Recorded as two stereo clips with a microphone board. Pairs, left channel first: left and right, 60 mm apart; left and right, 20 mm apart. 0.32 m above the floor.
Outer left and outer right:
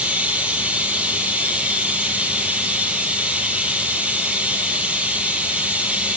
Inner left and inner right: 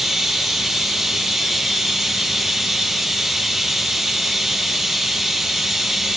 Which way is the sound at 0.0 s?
20° right (ahead or behind).